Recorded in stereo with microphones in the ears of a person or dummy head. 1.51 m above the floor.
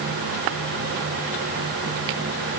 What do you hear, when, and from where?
Only background noise.